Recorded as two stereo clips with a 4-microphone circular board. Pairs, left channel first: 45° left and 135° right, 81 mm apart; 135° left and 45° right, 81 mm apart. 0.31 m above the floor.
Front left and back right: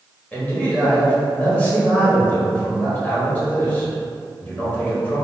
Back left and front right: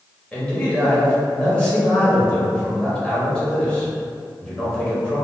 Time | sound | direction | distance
0.3 | a man speaking | 80° left | 0.9 m